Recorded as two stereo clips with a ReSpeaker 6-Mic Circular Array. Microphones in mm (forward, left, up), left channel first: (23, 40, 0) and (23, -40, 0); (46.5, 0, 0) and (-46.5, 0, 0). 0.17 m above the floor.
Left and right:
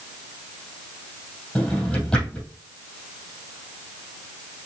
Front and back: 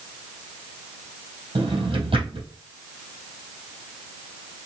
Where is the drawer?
170° left, 3 m.